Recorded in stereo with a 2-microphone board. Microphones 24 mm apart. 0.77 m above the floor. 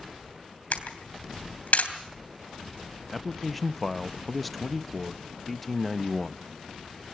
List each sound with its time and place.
0.7 s a camera shutter: 80° left, 3 m
3.1 s a man speaking: 5° left (ahead or behind), 0.5 m